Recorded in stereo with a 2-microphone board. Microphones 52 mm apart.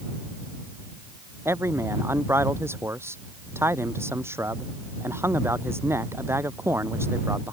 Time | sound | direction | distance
1.4 | a man speaking | 55° right (ahead or behind) | ?